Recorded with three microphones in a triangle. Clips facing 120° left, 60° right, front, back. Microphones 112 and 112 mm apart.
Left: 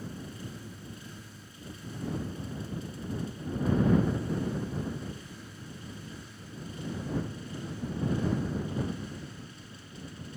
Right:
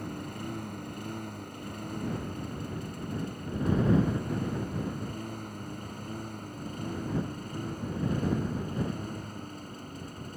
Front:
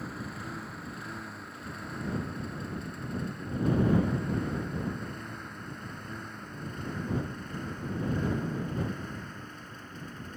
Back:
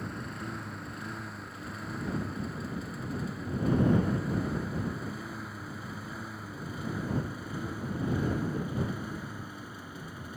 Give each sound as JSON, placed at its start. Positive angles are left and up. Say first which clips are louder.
{"t": 0.0, "sound": "a lawn mower", "louder": "right 4 dB, back 1 dB", "azimuth_deg": -90}